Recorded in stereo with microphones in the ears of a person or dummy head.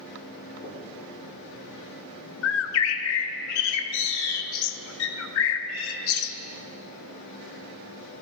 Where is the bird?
75° left (ahead or behind), 0.6 m.